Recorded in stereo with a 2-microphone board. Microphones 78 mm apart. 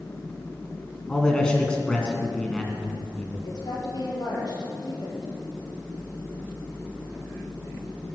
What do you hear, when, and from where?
1.1 s a man speaking: 10° left (ahead or behind), 2.5 m
3.4 s a woman speaking: 60° left (ahead or behind), 4.5 m